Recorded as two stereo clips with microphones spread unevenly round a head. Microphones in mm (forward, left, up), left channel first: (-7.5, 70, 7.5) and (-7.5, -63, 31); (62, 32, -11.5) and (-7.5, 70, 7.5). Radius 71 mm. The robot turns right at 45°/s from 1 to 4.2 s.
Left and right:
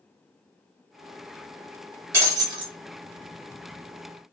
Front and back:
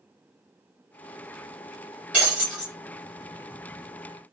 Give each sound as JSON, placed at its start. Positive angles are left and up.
{"t": 2.1, "sound": "breaking glass", "azimuth_deg": -145, "distance_m": 1.3}